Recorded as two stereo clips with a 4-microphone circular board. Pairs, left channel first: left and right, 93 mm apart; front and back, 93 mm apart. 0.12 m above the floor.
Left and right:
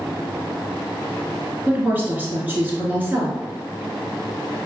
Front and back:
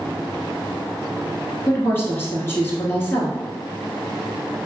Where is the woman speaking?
35° right, 1.2 m.